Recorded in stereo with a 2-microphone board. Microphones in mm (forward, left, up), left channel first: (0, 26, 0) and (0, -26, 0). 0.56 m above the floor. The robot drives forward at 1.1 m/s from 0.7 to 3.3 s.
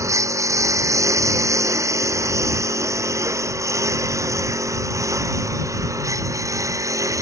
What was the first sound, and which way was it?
A lawn mower, 75° right (ahead or behind).